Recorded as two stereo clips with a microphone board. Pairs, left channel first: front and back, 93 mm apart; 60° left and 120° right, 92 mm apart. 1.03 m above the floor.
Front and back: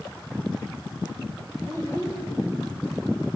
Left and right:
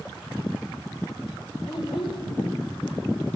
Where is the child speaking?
60° left, 2.5 m.